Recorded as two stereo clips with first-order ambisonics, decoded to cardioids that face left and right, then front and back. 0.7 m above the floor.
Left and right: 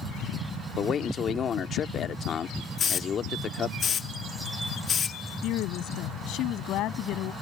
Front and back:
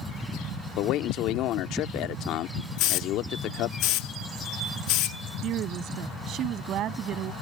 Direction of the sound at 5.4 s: 130° left.